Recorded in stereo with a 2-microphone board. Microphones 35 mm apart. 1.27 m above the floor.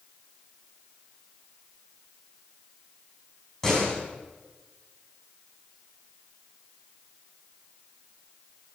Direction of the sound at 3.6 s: 10° left (ahead or behind).